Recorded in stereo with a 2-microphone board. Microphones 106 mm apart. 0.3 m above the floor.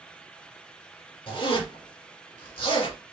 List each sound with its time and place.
1.3 s a zipper: 55° left (ahead or behind), 2 m